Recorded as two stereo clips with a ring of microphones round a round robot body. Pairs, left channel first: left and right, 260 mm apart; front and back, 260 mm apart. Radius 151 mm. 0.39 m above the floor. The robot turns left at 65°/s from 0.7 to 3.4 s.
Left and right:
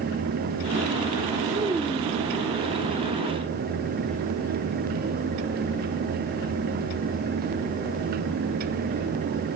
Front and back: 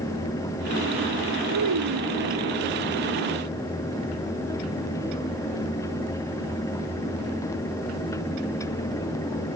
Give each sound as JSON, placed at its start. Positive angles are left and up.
{"t": 1.5, "sound": "a child speaking", "azimuth_deg": -160}